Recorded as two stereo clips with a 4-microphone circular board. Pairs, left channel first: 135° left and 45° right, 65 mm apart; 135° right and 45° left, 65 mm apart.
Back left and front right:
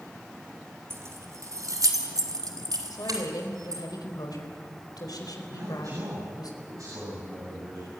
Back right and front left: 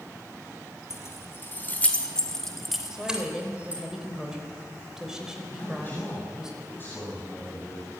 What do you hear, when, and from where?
0.9 s keys jangling: 95° right, 3 m; by 3.8 s 20° right, 4 m
2.9 s a woman speaking: 125° left, 4 m
5.5 s a man speaking: 75° right, 7.5 m